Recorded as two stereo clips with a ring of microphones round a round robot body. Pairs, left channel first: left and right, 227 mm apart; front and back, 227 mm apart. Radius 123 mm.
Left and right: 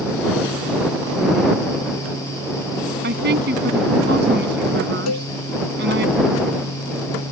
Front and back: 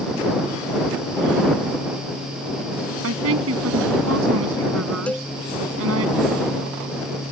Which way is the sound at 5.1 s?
85° left.